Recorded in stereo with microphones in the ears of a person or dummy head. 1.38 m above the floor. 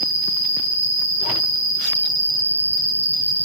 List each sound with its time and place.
0.0 s an insect: 45° right (ahead or behind), 1.0 m